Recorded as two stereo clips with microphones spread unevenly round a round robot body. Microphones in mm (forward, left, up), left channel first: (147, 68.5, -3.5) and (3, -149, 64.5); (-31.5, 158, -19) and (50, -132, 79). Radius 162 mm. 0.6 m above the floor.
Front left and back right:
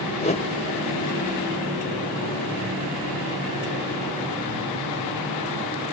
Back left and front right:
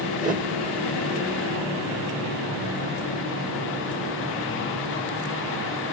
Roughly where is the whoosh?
Ahead.